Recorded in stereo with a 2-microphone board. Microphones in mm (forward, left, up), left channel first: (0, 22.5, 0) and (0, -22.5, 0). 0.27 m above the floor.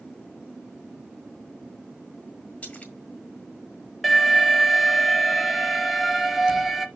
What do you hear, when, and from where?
2.6 s a splash: 30° left (ahead or behind), 1.5 m
4.0 s an alarm: centre (ahead or behind), 1.0 m